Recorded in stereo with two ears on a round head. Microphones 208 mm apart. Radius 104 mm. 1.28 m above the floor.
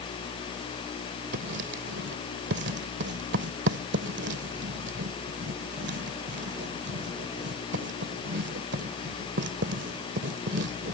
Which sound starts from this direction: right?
Writing, at 1.3 s.